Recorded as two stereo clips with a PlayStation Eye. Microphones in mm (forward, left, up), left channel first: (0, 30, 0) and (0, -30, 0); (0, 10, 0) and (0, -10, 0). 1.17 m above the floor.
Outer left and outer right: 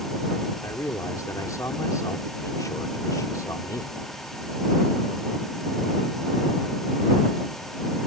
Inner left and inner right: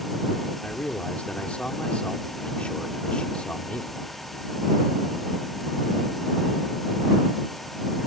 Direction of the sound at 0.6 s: 70° left (ahead or behind).